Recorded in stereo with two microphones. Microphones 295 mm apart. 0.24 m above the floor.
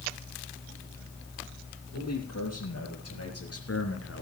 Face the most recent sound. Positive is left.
turn(degrees=50)  # may be behind; listen again after turning